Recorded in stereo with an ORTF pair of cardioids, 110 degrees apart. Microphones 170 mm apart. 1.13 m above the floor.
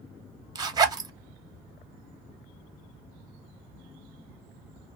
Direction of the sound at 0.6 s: 25° right.